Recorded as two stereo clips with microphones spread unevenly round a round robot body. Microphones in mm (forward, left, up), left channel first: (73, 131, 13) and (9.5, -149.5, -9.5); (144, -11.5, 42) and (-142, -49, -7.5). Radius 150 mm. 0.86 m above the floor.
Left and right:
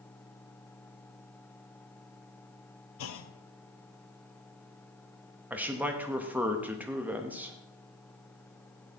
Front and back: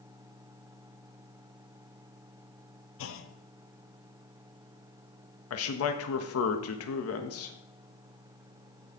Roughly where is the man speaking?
Ahead right.